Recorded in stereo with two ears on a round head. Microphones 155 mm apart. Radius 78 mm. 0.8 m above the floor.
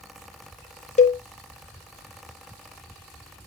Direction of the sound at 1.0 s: 40° left (ahead or behind).